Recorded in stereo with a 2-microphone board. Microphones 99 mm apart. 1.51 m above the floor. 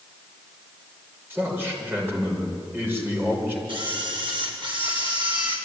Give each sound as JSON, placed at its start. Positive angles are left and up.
{"t": 1.3, "sound": "a man speaking", "side_deg": -20, "distance_m": 6.0}
{"t": 3.7, "sound": "a camera shutter", "side_deg": -55, "distance_m": 4.5}